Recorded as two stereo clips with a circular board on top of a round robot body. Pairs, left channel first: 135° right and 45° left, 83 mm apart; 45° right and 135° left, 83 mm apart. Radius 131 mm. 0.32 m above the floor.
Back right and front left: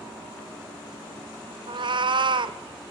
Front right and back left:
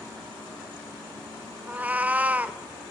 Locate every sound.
1.7 s a cat meowing: 65° left, 0.5 m